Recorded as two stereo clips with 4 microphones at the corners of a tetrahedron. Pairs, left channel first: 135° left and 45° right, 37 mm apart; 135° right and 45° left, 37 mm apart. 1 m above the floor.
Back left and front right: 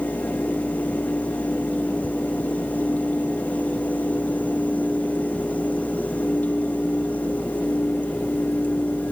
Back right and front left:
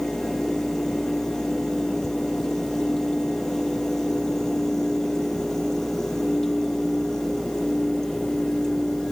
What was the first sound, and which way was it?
Only background noise.